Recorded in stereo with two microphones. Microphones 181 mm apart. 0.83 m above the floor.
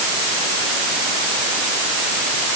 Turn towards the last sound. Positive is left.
No sound to turn to.